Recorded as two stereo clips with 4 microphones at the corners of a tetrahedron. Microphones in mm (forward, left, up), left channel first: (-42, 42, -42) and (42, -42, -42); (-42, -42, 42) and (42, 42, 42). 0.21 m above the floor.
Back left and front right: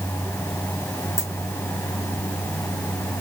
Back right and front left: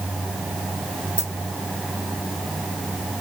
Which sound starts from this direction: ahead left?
A dropped coin, at 1.2 s.